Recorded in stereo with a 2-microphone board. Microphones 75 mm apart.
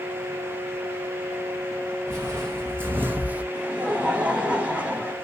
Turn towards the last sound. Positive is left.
turn(degrees=-15)  # may be behind; listen again after turning